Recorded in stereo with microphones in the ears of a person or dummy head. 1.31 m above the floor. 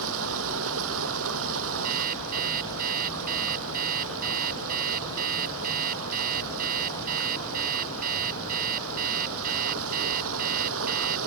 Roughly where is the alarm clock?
Right.